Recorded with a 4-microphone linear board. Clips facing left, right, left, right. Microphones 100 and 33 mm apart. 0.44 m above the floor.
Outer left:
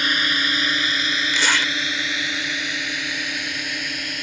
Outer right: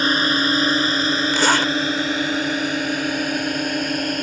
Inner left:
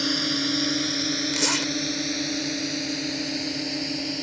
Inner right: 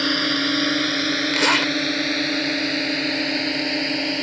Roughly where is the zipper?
Right.